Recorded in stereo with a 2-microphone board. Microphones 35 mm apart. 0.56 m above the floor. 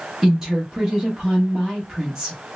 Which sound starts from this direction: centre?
A woman speaking, at 0.2 s.